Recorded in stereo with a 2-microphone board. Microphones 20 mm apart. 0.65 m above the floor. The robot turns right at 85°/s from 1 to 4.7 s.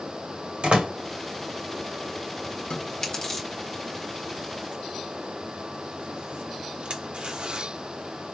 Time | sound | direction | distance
0.6 | a door slam | 60° right (ahead or behind) | 1.9 m
2.7 | chewing | 55° left (ahead or behind) | 1.2 m